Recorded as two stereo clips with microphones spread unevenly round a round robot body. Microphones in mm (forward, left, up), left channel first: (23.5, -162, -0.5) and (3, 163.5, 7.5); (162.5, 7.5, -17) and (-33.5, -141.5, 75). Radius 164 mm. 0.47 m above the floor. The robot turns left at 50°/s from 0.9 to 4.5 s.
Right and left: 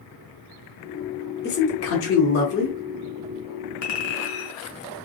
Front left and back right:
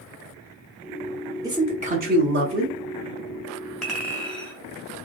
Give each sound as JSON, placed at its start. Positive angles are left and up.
{"t": 1.4, "sound": "a man speaking", "azimuth_deg": -45, "distance_m": 0.8}
{"t": 3.8, "sound": "a clink", "azimuth_deg": -45, "distance_m": 1.3}